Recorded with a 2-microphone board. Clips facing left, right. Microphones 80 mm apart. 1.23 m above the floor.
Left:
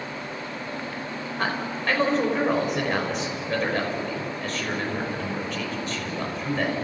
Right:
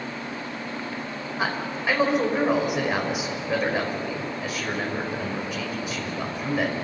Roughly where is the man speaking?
Centre.